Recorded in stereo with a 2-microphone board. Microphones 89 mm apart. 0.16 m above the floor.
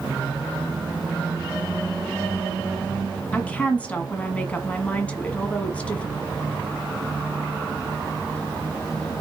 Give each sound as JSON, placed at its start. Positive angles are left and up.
{"t": 3.3, "sound": "a woman speaking", "side_deg": 15, "distance_m": 1.5}